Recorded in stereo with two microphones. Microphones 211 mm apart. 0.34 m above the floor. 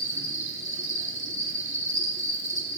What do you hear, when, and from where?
0.0 s an insect: 75° right (ahead or behind), 1.8 m